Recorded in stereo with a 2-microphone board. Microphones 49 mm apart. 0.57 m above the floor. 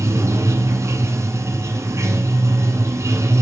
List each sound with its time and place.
0.0 s running water: 80° right, 1.4 m